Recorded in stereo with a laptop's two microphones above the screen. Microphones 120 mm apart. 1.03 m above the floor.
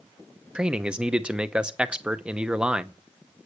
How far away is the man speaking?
About 0.7 m.